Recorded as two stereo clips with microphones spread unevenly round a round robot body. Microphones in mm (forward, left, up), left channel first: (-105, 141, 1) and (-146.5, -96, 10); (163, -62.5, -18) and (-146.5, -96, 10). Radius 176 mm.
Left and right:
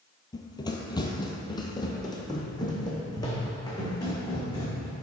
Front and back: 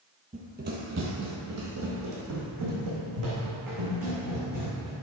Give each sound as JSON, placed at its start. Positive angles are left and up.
{"t": 0.3, "sound": "running footsteps", "azimuth_deg": 145, "distance_m": 0.8}